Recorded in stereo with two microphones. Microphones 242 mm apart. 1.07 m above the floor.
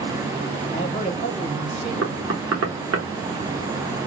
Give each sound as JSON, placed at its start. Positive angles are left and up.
{"t": 0.7, "sound": "a man speaking", "side_deg": 25, "distance_m": 1.3}
{"t": 2.0, "sound": "knocking", "side_deg": -75, "distance_m": 0.9}